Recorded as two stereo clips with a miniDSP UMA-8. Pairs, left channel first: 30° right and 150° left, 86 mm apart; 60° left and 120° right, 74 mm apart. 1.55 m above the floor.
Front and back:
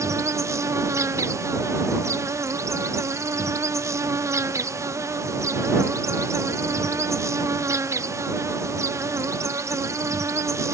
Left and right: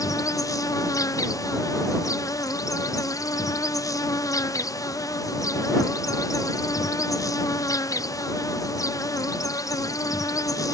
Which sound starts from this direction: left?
An insect, at 0.0 s.